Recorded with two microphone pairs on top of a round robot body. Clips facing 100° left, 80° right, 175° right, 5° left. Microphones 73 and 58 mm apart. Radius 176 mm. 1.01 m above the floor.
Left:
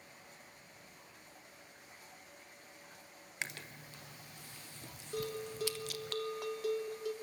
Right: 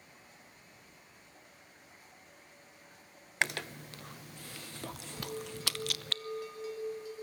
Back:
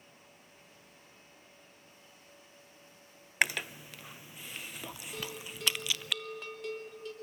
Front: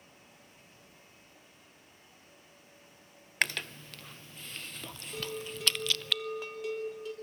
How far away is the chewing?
About 0.8 m.